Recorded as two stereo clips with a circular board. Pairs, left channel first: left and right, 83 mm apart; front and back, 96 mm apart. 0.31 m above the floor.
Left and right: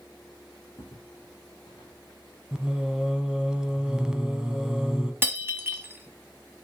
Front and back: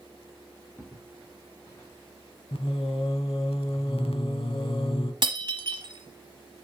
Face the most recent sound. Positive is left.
turn(degrees=-150)